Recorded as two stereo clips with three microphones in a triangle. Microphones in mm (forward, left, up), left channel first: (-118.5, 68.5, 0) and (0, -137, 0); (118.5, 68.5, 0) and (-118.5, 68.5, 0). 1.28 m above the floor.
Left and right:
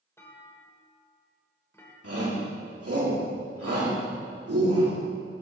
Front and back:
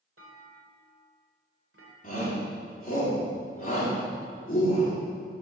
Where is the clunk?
160° right, 2 m.